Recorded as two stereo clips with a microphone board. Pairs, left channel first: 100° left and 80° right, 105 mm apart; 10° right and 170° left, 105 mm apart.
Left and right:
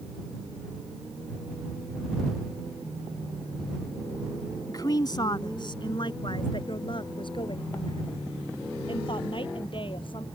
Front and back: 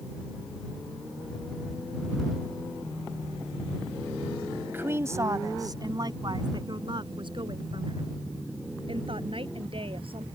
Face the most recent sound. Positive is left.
turn(degrees=140)